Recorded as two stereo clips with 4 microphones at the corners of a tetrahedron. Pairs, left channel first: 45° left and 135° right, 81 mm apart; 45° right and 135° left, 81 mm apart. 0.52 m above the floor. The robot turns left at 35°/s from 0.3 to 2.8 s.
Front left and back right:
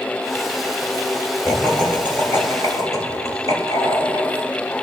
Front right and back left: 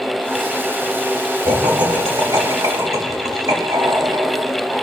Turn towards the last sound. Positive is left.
turn(degrees=85)